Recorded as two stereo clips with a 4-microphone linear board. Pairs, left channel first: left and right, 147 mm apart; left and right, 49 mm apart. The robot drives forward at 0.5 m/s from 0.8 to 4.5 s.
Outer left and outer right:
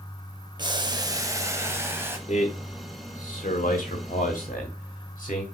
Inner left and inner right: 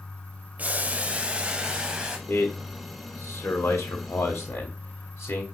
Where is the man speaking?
55° left (ahead or behind), 1.5 m; by 5.4 s 60° left (ahead or behind), 1.4 m.